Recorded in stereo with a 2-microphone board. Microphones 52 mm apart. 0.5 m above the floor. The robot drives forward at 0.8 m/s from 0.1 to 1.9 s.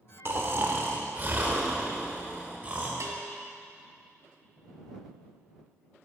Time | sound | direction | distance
0.2 | snoring | 50° right (ahead or behind) | 1.1 m
3.0 | a bell | 70° right (ahead or behind) | 1.4 m